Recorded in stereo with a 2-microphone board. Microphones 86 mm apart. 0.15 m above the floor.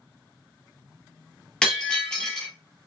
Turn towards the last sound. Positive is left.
turn(degrees=10)  # may be behind; listen again after turning